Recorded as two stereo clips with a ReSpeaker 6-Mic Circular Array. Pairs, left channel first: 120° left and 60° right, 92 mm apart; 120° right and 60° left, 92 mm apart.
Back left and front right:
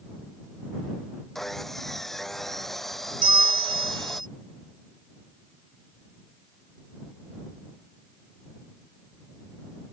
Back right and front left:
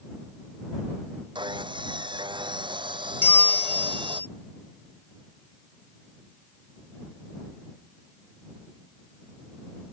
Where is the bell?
55° right.